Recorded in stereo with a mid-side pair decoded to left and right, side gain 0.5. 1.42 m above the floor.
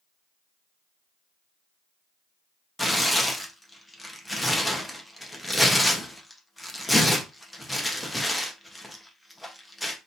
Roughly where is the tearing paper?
Ahead.